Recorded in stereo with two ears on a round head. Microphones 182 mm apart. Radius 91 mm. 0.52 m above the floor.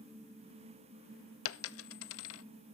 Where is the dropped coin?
75° left (ahead or behind), 0.6 m.